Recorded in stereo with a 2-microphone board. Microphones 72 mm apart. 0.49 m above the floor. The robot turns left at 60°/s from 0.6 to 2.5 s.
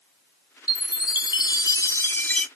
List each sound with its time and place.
0.7 s a chime: 120° left, 0.6 m; by 2.5 s 15° left, 0.6 m